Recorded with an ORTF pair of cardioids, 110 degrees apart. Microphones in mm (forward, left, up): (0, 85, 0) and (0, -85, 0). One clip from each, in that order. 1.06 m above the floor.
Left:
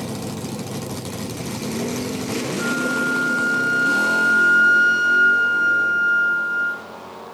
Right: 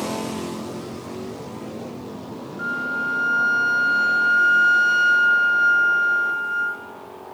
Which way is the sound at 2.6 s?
5° right.